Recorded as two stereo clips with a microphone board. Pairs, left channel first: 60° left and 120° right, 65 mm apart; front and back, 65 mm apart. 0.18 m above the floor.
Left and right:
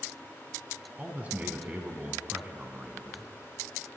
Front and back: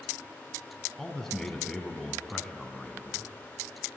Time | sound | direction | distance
1.0 | a man speaking | 80° right | 1.6 m